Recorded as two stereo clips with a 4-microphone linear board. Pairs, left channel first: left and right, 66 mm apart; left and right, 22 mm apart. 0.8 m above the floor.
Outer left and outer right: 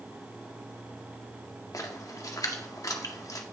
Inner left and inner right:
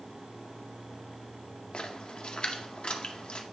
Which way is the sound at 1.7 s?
55° left (ahead or behind).